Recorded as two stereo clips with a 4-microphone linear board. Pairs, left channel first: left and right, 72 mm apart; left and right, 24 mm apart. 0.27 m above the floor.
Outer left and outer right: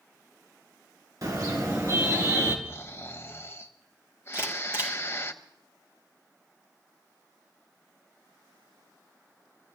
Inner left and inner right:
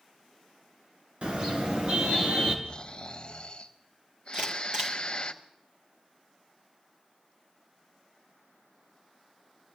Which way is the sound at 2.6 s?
35° left (ahead or behind).